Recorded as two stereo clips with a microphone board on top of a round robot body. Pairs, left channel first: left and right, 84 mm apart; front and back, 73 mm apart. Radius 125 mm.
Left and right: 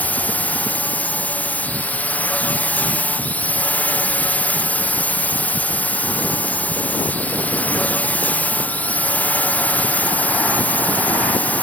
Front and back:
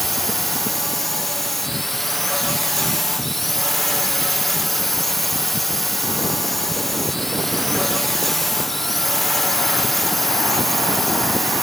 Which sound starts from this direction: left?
A drone, at 0.0 s.